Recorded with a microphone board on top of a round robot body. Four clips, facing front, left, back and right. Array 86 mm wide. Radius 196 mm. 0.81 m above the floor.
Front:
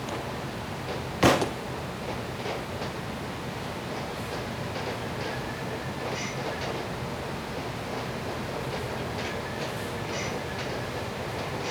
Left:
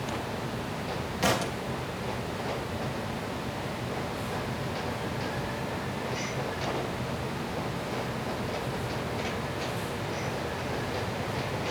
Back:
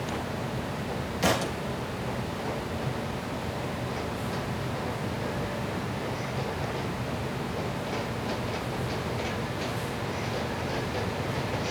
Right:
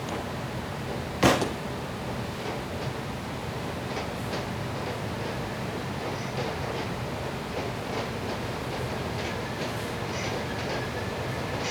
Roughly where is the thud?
Ahead right.